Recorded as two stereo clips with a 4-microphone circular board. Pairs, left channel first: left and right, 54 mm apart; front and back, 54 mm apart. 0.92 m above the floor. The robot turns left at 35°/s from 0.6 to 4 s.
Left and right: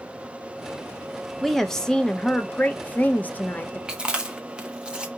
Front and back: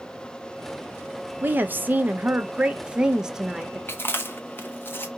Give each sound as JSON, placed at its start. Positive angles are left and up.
{"t": 1.4, "sound": "a woman speaking", "azimuth_deg": 175, "distance_m": 0.7}
{"t": 3.9, "sound": "chewing", "azimuth_deg": -15, "distance_m": 0.7}